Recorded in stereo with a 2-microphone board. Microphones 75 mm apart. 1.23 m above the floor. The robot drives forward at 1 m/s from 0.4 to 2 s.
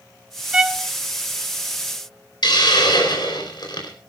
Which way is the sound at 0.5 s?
10° right (ahead or behind).